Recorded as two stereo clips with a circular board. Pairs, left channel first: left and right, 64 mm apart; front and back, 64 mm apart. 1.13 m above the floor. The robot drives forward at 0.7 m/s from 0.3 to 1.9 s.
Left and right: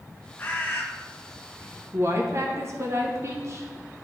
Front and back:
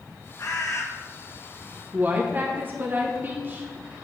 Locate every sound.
0.4 s a bird: 30° left, 1.0 m; by 0.9 s 40° left, 0.7 m
1.9 s a woman speaking: 125° right, 0.7 m